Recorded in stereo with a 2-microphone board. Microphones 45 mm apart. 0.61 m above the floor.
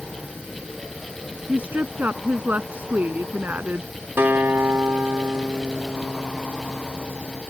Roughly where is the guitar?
Right.